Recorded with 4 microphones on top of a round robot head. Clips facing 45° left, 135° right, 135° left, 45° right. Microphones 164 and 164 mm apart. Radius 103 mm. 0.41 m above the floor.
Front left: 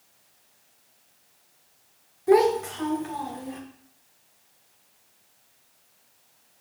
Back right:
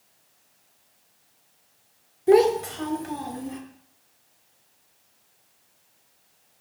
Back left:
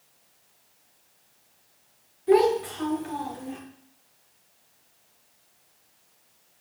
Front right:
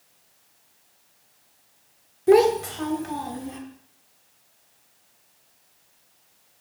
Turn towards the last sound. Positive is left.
turn(degrees=-95)